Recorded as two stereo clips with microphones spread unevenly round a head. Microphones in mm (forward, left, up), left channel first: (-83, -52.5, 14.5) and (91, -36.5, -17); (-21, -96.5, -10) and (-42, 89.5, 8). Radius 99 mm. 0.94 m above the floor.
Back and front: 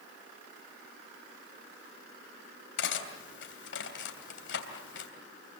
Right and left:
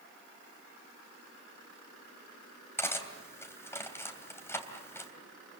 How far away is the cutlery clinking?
About 3 m.